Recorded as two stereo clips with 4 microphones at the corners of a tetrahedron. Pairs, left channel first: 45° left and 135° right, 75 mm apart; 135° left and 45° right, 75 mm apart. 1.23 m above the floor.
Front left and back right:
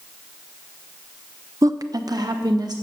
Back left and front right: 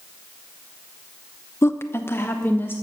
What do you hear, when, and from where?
1.6 s a woman speaking: 175° right, 0.5 m; by 2.8 s 165° right, 1.4 m